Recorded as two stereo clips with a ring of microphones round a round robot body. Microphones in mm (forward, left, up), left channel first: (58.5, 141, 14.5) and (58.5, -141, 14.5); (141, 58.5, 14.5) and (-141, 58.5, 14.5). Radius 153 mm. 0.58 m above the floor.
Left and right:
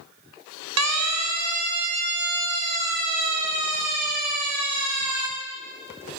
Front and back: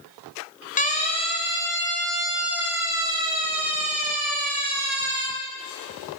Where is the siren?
65° right, 3.5 m; by 5.3 s 125° right, 5.5 m.